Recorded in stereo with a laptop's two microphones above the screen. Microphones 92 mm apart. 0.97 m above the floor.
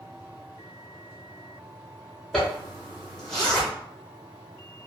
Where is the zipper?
5° left (ahead or behind), 1.1 m.